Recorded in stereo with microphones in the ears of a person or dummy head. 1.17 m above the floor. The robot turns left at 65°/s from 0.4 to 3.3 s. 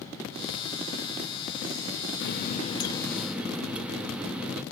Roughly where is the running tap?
Ahead left.